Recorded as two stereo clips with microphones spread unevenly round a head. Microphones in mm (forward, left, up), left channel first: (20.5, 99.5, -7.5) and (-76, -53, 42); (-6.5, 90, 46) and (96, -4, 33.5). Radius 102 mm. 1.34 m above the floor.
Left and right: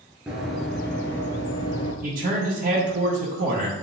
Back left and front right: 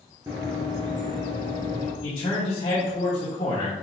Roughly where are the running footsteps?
Right.